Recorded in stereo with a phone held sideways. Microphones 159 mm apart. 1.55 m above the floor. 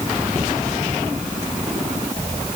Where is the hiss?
I don't hear a hiss.